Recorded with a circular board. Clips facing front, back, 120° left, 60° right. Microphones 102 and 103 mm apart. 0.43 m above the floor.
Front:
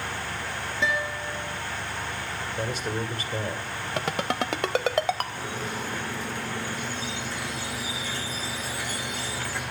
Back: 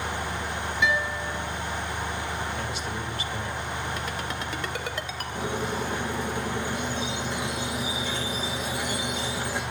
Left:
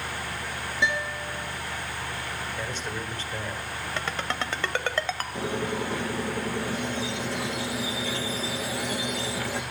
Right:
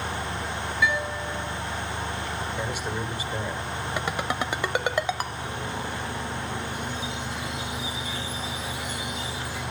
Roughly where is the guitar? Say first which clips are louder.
Back 1 dB, right 2 dB; ahead left.